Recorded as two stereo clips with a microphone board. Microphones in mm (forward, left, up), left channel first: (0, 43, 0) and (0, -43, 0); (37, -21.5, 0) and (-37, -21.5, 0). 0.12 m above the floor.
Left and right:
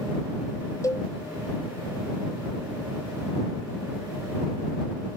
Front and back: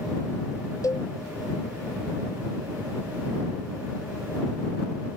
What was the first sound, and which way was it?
A cowbell, 40° left.